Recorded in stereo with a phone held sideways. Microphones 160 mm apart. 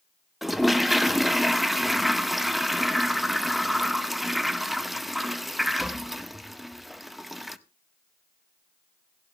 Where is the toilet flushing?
Centre (ahead or behind), 0.6 m.